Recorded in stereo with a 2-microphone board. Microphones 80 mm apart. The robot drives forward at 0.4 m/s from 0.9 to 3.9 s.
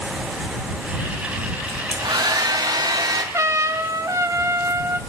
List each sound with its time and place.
1.7 s a hair dryer: 65° right (ahead or behind), 3 m; by 3.2 s 60° right (ahead or behind), 3.5 m
3.3 s a trumpet: 40° right (ahead or behind), 1.4 m